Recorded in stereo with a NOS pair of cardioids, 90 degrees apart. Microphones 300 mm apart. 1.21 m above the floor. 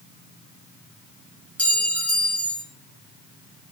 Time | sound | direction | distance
1.6 | a clink | 5° left | 0.6 m